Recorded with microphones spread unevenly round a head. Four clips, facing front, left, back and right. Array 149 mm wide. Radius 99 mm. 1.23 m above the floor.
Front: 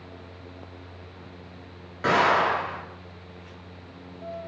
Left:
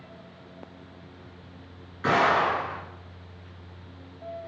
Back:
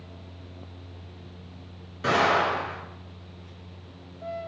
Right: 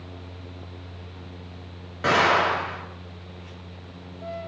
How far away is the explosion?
About 1.6 m.